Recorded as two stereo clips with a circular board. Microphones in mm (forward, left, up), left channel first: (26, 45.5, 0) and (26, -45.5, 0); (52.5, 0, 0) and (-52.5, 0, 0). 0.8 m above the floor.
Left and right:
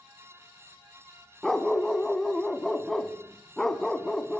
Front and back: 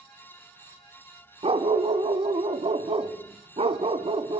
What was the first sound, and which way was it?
A dog barking, 175° left.